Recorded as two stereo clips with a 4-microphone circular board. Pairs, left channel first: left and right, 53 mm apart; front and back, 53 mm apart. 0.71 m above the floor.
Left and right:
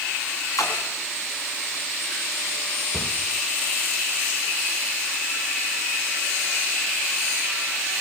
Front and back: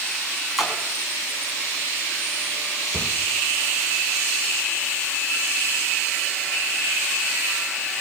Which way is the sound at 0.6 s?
95° left.